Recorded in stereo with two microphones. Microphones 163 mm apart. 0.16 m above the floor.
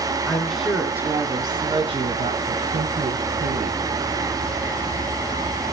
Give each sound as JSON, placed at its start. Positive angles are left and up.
{"t": 0.3, "sound": "a woman speaking", "side_deg": 10, "distance_m": 1.4}